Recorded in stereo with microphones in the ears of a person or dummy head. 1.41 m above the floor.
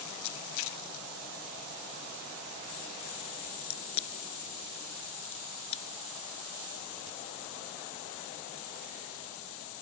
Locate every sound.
3.6 s a crack: 35° left (ahead or behind)